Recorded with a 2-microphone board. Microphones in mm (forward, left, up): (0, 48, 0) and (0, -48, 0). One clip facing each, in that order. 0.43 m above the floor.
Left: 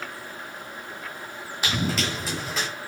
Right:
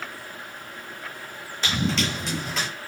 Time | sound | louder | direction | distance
1.6 | running footsteps | right 1 dB | 10° left (ahead or behind) | 1.4 m